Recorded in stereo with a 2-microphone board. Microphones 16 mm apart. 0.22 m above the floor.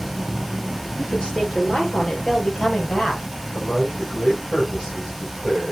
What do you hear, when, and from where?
1.0 s a woman speaking: 50° left (ahead or behind), 3.5 m; by 3.2 s 55° left (ahead or behind), 5 m
3.5 s a man speaking: 45° left (ahead or behind), 7.5 m